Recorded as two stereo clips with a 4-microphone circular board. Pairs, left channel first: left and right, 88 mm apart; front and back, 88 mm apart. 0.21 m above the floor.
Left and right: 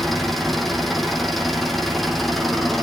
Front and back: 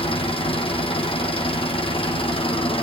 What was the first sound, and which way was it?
An engine running, straight ahead.